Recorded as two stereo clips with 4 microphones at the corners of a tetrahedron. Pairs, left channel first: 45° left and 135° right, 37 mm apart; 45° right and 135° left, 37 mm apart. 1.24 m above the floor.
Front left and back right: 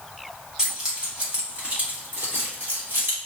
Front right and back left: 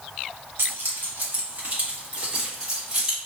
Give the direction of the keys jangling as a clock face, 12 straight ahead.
7 o'clock.